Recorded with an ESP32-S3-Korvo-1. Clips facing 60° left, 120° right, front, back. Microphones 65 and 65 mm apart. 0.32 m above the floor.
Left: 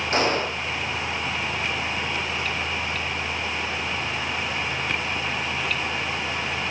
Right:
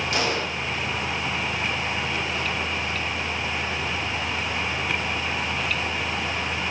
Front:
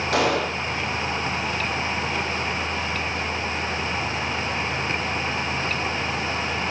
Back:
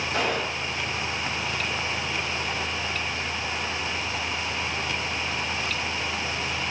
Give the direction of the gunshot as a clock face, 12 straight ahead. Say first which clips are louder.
Left 5 dB, front 6 dB; 12 o'clock.